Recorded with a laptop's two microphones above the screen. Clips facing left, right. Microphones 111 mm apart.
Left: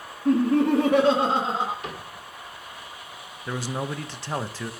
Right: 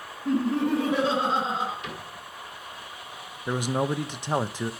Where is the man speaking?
15° right (ahead or behind), 0.5 m.